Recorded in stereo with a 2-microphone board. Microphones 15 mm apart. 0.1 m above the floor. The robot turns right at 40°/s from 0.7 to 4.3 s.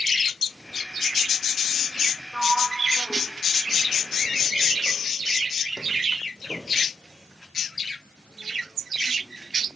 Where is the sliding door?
15° right (ahead or behind), 5 m; by 6.7 s 60° left (ahead or behind), 5 m.